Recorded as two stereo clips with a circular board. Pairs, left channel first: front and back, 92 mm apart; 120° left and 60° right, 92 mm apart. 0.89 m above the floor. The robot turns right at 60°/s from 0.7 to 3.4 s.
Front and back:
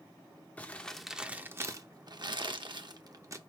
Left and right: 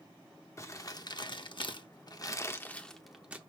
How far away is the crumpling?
About 0.6 m.